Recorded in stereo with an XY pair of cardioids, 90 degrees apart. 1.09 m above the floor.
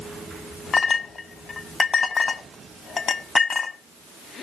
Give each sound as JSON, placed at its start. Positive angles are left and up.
{"t": 0.7, "sound": "a clink", "azimuth_deg": 50, "distance_m": 1.5}